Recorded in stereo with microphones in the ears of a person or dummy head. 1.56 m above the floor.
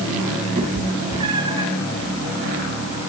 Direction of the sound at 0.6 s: 35° right (ahead or behind).